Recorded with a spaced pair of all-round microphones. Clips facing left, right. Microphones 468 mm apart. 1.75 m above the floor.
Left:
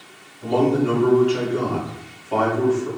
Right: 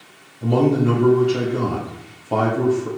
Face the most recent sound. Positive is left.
turn(degrees=-60)  # may be behind; listen again after turning